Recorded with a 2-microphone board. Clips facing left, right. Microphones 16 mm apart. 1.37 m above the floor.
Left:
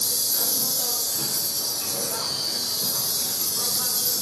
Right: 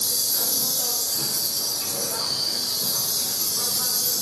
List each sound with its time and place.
0.0 s an insect: 40° right (ahead or behind), 2 m